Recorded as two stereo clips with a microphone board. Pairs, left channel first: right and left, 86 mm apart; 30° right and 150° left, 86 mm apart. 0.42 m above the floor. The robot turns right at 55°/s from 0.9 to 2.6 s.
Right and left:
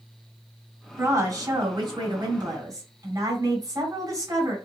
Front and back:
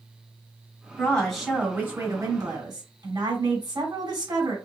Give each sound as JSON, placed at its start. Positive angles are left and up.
{"t": 1.0, "sound": "a woman speaking", "azimuth_deg": 35, "distance_m": 2.5}